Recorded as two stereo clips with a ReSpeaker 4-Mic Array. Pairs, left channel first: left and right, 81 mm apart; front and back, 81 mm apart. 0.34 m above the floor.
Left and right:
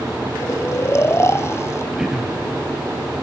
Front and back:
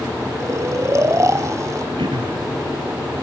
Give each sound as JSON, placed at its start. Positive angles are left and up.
{"t": 0.4, "sound": "snoring", "azimuth_deg": 140, "distance_m": 0.8}
{"t": 2.0, "sound": "throat clearing", "azimuth_deg": -175, "distance_m": 2.0}